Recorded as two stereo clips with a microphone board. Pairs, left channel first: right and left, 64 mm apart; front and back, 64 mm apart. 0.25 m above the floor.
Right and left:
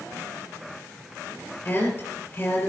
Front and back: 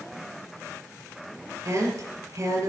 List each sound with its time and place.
1.6 s a woman speaking: 145° right, 4.5 m